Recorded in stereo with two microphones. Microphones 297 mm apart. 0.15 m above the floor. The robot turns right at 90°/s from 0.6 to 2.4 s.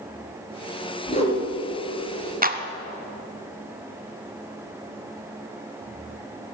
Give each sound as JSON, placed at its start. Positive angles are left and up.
{"t": 1.1, "sound": "a whoosh", "azimuth_deg": 145, "distance_m": 3.5}
{"t": 2.4, "sound": "a clap", "side_deg": -25, "distance_m": 0.9}